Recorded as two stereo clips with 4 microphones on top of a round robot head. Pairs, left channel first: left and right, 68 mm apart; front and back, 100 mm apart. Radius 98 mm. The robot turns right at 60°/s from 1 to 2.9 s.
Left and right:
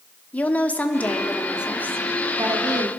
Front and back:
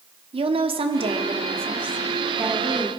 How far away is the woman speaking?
About 1.4 m.